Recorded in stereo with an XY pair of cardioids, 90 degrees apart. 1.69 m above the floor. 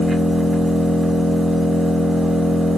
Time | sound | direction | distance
0.0 | an engine running | 20° right | 1.4 m